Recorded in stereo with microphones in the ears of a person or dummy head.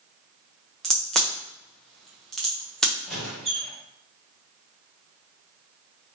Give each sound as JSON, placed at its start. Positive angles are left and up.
{"t": 0.8, "sound": "a crack", "side_deg": 0, "distance_m": 0.6}
{"t": 3.0, "sound": "a squeak", "side_deg": 0, "distance_m": 0.8}